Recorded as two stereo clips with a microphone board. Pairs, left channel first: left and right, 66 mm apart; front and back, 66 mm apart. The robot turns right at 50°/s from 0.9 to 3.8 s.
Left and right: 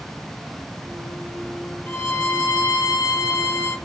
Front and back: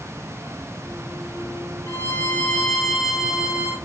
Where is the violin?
30° left, 1.4 m; by 3.8 s 125° left, 1.4 m.